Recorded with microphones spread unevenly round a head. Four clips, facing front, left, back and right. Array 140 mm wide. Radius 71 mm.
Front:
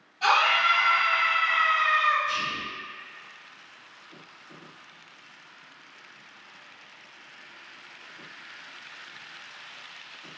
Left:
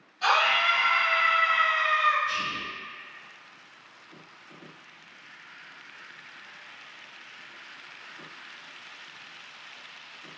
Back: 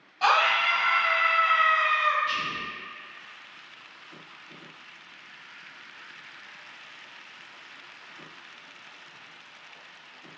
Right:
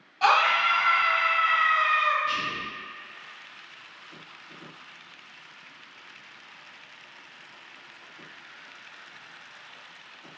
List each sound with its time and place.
0.2 s a scream: 120° right, 1.6 m
2.2 s whispering: 100° right, 0.6 m